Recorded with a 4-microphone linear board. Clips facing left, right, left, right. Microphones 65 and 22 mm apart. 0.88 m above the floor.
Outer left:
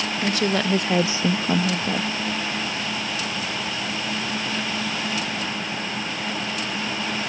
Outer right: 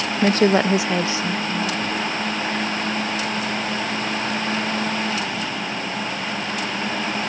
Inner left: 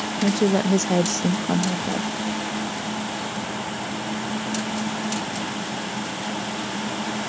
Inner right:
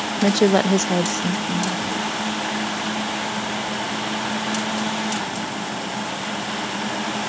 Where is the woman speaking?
40° right (ahead or behind); by 2.1 s 65° left (ahead or behind).